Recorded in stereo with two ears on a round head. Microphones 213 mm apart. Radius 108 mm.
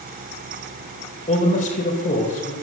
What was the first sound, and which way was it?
A man speaking, 35° left (ahead or behind).